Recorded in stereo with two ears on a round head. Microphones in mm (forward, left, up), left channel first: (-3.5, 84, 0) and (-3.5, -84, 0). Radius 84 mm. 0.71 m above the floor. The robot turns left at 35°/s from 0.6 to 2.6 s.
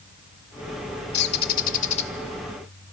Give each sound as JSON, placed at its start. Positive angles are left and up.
{"t": 1.1, "sound": "a bird", "azimuth_deg": 65, "distance_m": 0.8}